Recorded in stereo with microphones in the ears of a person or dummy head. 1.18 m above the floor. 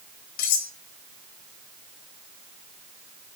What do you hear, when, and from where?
0.4 s cutlery clinking: 65° left (ahead or behind), 1.3 m